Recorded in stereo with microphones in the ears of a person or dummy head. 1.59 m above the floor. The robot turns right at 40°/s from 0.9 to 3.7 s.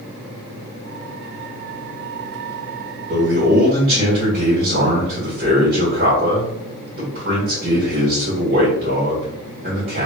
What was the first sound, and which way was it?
A man speaking, 70° right (ahead or behind).